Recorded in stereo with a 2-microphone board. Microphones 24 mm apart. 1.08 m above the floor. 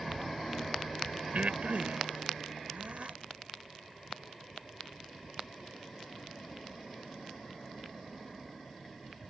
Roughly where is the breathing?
Right.